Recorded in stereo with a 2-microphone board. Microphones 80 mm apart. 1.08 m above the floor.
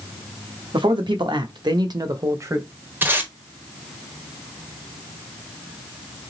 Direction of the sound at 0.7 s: 85° right.